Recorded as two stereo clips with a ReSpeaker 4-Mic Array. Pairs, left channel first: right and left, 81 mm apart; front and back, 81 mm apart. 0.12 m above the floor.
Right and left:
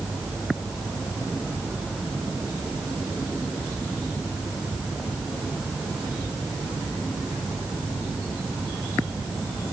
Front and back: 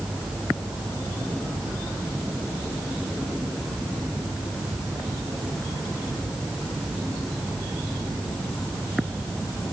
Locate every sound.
Only background noise.